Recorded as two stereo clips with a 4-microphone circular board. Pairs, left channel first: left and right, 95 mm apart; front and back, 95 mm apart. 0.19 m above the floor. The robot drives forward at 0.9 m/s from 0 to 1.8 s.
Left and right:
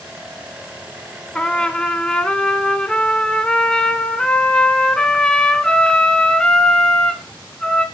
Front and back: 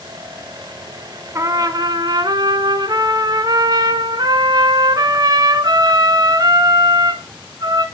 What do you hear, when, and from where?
1.4 s a trumpet: 160° left, 1.0 m; by 7.8 s 170° left, 1.3 m